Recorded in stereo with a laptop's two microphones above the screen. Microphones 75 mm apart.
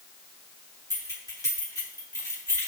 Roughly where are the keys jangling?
Left.